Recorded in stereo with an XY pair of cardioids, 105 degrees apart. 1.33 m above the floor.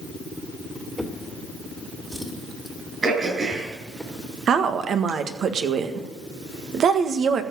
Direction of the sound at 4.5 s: 60° right.